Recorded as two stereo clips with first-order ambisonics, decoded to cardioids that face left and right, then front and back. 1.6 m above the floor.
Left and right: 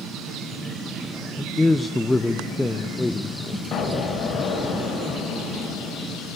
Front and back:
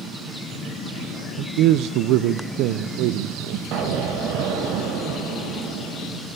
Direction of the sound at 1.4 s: 175° left.